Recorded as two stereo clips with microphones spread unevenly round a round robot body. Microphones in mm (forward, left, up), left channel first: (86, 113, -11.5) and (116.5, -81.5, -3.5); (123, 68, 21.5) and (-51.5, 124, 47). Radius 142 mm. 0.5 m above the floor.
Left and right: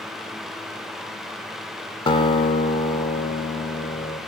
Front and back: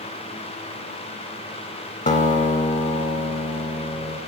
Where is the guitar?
30° left, 0.6 m.